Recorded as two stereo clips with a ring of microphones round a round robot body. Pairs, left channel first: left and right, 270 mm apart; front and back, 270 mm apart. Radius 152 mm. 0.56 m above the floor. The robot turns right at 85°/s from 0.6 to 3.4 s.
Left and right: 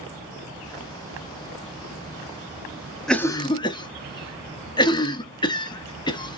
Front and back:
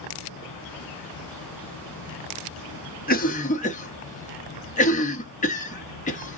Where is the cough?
5° left, 0.8 m; by 6.4 s 30° left, 0.8 m.